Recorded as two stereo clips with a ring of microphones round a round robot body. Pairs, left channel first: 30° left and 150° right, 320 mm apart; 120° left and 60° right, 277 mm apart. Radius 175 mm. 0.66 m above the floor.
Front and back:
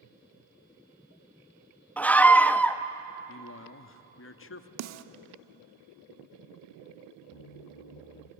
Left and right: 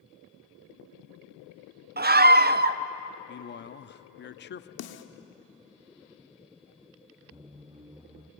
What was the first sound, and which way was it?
A scream, 50° right.